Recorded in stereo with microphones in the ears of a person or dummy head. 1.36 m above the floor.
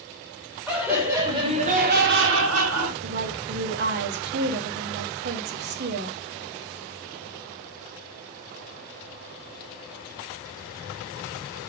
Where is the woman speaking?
50° right (ahead or behind), 1.0 m.